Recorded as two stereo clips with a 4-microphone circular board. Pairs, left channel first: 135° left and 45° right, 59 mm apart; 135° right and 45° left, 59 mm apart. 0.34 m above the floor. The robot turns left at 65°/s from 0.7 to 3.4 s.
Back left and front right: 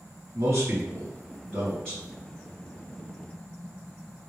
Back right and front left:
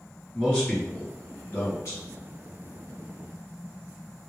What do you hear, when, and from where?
0.3 s a man speaking: 70° right, 2.0 m; by 2.0 s 155° right, 2.0 m